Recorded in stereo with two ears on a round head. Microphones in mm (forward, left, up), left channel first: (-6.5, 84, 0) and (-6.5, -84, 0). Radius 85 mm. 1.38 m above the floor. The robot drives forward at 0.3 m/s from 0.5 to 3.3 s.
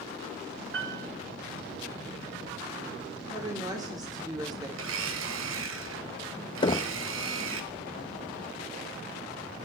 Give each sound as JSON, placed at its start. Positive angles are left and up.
{"t": 0.7, "sound": "a piano", "side_deg": -70, "distance_m": 6.5}
{"t": 3.3, "sound": "a woman speaking", "side_deg": -20, "distance_m": 3.5}
{"t": 4.8, "sound": "a blender", "side_deg": -75, "distance_m": 1.6}
{"t": 6.6, "sound": "knocking", "side_deg": 25, "distance_m": 0.7}